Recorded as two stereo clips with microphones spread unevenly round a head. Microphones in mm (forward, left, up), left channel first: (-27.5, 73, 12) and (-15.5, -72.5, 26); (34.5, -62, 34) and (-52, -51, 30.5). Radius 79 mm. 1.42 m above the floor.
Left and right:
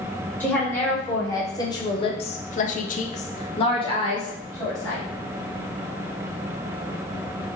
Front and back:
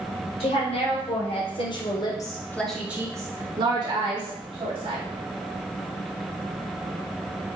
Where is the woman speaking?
15° left, 1.8 m; by 5.1 s 165° left, 1.7 m.